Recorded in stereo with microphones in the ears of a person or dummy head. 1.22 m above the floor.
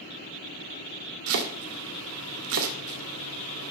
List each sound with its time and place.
1.3 s chopping: 75° right (ahead or behind), 1.9 m